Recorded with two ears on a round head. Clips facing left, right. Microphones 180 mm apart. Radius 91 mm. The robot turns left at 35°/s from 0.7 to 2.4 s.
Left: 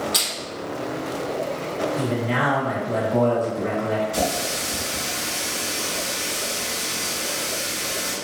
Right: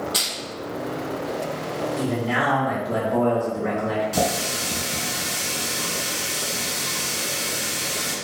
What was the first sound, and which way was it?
Crushing, 30° left (ahead or behind).